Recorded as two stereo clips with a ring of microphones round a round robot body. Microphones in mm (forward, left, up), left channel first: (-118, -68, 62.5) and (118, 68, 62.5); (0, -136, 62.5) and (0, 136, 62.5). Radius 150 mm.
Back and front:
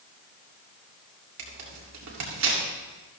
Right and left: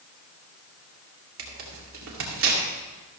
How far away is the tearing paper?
About 2.5 m.